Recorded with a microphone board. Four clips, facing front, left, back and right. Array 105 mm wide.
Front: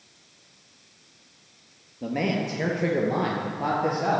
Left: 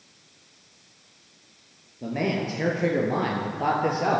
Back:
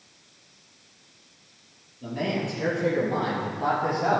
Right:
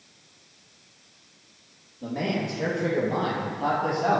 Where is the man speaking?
25° left, 2.5 m; by 4.2 s 85° left, 2.5 m.